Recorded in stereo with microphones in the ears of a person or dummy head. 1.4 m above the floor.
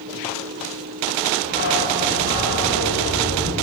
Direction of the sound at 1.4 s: 40° left (ahead or behind).